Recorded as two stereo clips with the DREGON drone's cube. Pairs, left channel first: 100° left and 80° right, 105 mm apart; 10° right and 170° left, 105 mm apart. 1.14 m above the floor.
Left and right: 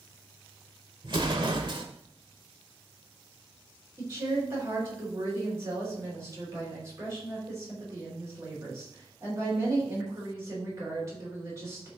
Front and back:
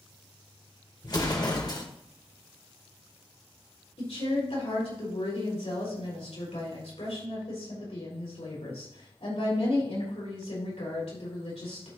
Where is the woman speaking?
20° right, 4.5 m.